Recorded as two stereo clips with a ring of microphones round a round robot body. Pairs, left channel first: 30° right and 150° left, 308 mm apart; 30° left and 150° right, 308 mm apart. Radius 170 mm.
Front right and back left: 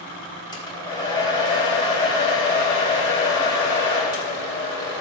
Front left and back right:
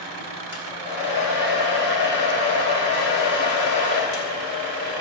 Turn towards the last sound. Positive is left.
turn(degrees=45)